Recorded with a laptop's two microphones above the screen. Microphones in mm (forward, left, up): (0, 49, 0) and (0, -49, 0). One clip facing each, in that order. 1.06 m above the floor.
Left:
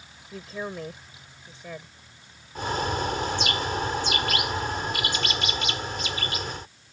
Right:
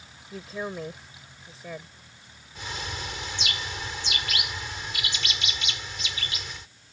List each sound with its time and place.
0.3 s a woman speaking: centre (ahead or behind)
2.5 s a bird: 45° left (ahead or behind)